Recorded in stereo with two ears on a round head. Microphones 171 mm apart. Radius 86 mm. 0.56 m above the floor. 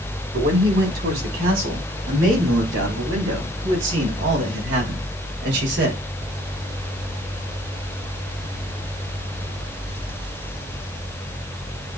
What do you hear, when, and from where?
0.3 s a man speaking: 75° right (ahead or behind), 5.5 m; by 6.0 s 65° right (ahead or behind), 2.5 m